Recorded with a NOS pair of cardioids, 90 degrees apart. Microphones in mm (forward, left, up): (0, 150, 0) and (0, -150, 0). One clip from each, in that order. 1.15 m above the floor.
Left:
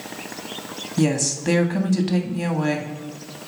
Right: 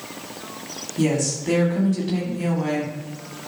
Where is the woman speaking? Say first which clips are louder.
Even; 55° left, 1.8 m.